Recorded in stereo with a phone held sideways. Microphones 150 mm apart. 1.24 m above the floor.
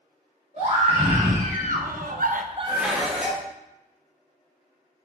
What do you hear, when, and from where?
0.6 s a scream: 50° right (ahead or behind), 3 m; by 3.4 s 10° left (ahead or behind), 1.6 m
2.7 s dishes clattering: 5° right (ahead or behind), 1.3 m